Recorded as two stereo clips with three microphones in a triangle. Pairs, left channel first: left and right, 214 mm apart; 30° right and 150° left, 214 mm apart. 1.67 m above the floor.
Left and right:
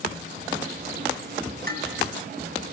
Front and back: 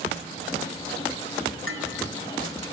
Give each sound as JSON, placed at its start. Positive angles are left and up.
{"t": 1.7, "sound": "dishes clattering", "azimuth_deg": -50, "distance_m": 9.0}